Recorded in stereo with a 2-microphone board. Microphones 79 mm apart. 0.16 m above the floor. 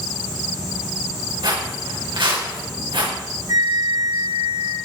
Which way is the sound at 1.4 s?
75° right (ahead or behind).